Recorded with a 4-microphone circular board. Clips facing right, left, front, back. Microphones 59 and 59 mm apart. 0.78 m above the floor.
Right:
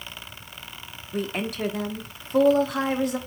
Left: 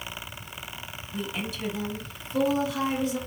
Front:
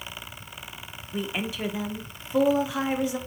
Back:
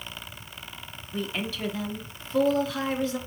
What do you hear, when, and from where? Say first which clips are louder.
1.1 s a woman speaking: right 5 dB, front 1 dB; 70° right, 0.6 m